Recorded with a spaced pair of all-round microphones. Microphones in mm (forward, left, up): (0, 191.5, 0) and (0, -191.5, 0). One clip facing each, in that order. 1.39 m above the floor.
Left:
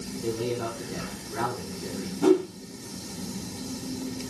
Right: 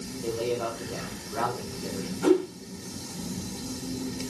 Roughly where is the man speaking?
Left.